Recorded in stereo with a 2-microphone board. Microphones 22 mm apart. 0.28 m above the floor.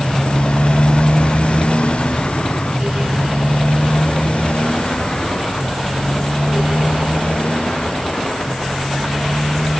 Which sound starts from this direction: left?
A motorcycle, at 0.0 s.